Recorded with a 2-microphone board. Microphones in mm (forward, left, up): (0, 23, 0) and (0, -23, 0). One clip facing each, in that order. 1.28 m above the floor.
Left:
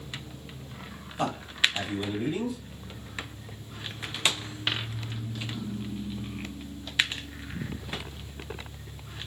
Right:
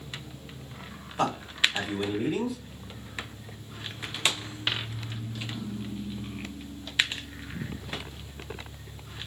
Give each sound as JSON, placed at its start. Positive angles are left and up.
{"t": 1.2, "sound": "a man speaking", "side_deg": -80, "distance_m": 1.3}